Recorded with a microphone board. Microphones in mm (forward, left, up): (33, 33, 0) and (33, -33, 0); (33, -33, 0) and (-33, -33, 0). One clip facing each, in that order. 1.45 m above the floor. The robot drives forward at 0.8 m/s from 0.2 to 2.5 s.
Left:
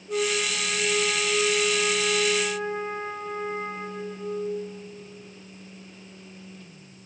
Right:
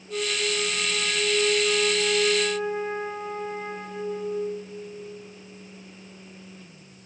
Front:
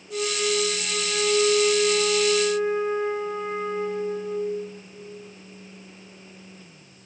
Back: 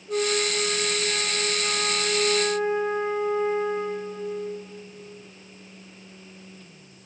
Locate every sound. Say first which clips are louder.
0.1 s a flute: left 2 dB, back 1 dB; 125° left, 1.9 m; by 4.3 s 150° left, 3.5 m